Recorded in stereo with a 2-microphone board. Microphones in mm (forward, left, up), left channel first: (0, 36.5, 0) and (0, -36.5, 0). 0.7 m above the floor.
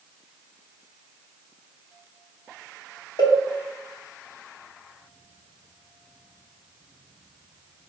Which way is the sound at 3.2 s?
70° left (ahead or behind).